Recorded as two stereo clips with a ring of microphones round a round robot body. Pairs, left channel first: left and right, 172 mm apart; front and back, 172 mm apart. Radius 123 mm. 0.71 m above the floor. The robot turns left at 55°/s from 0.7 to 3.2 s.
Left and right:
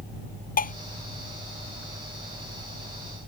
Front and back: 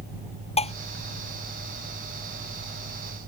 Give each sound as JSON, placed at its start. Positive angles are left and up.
{"t": 0.6, "sound": "dishes clattering", "azimuth_deg": 55}